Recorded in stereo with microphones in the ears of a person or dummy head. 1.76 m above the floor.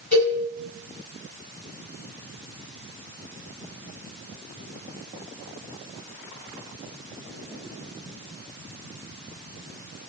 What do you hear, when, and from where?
0.1 s a cowbell: 5° left (ahead or behind), 1.9 m